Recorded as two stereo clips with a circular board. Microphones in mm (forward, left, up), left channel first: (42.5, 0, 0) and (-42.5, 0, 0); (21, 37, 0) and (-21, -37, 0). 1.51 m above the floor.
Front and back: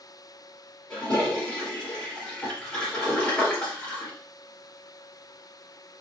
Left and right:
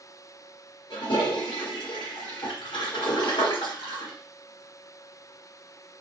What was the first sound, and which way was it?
A toilet flushing, 75° left.